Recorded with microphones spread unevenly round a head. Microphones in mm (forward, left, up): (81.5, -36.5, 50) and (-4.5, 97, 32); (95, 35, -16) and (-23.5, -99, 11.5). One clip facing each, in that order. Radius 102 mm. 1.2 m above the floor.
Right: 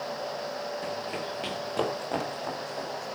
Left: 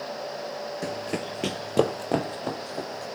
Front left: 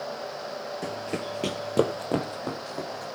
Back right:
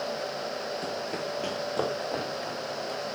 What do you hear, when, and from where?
0.8 s running footsteps: 125° left, 1.4 m; by 3.1 s 80° left, 3.5 m